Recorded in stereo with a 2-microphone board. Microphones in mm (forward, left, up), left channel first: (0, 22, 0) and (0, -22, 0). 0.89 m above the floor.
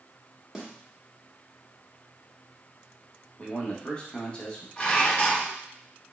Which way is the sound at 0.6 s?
10° right (ahead or behind).